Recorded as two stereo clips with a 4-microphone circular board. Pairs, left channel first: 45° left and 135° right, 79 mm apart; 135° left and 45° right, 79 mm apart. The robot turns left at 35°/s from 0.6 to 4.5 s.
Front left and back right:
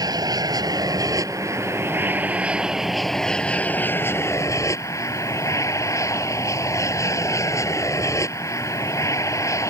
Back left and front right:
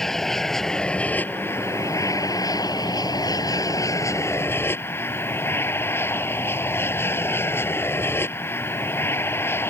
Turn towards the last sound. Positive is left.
turn(degrees=85)